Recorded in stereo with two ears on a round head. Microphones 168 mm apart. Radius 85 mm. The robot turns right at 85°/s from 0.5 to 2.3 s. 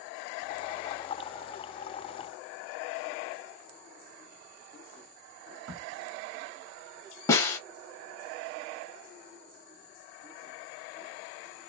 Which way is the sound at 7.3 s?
15° left (ahead or behind).